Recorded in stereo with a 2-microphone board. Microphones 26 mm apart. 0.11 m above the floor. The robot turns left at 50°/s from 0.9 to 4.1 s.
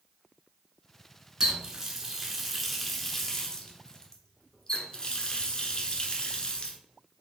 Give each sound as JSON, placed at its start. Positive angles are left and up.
{"t": 1.4, "sound": "a running tap", "side_deg": -20, "distance_m": 0.8}